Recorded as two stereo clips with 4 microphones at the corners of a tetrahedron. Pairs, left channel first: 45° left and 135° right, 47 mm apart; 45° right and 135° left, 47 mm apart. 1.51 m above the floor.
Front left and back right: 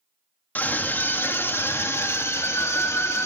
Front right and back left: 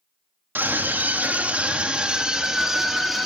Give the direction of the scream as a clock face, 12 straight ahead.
9 o'clock.